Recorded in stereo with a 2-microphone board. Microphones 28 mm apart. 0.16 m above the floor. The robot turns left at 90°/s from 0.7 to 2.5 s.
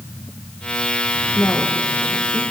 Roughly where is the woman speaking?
Left.